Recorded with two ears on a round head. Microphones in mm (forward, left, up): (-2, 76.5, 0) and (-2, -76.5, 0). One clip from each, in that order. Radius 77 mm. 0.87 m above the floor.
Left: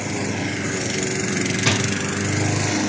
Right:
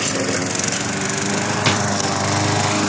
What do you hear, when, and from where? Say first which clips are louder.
1.6 s a drawer: right 2 dB; 35° right (ahead or behind), 2 m